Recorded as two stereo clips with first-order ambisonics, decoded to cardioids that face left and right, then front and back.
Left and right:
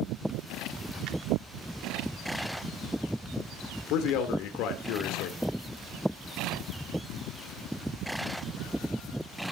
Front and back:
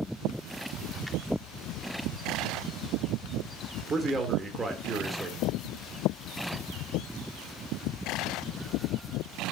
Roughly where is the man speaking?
Left.